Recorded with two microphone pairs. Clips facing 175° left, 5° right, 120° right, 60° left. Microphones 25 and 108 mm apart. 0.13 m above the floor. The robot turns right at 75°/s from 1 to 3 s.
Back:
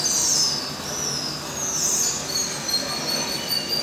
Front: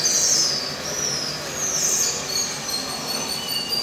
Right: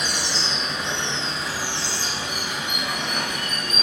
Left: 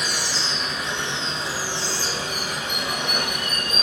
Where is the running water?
25° right, 1.9 m; by 3.8 s 125° left, 1.9 m.